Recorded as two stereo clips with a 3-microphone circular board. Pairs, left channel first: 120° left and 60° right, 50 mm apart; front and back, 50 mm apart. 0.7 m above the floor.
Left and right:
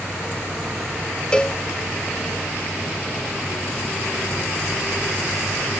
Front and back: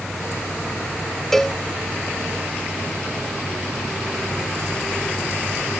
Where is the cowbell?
75° left.